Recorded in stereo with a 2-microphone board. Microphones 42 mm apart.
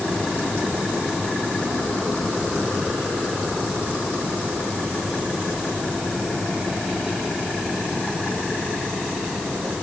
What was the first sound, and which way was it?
Only background noise.